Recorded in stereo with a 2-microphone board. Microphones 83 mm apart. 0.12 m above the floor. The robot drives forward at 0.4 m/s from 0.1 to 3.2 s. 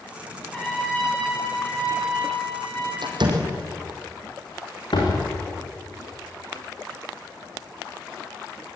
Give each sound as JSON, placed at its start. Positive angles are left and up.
{"t": 0.5, "sound": "a trumpet", "side_deg": 10, "distance_m": 10.0}
{"t": 3.0, "sound": "a door slam", "side_deg": -65, "distance_m": 4.0}
{"t": 4.9, "sound": "a door slam", "side_deg": 70, "distance_m": 7.0}